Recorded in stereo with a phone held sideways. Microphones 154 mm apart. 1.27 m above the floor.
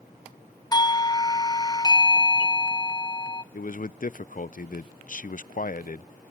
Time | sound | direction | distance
0.7 | a doorbell | 25° left (ahead or behind) | 0.7 m
3.5 | a man speaking | 60° left (ahead or behind) | 0.5 m